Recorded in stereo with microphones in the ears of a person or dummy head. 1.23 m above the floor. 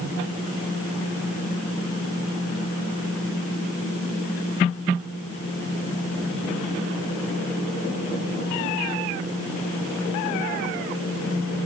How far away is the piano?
I don't hear a piano.